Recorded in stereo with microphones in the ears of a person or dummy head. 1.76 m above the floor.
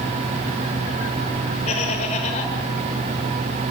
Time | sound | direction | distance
1.7 | laughter | 40° left (ahead or behind) | 8 m